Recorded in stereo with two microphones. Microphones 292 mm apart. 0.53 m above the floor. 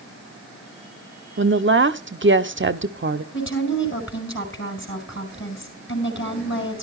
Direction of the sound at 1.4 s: 40° right (ahead or behind).